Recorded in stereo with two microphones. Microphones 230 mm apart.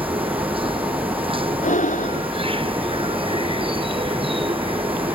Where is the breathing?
35° left (ahead or behind).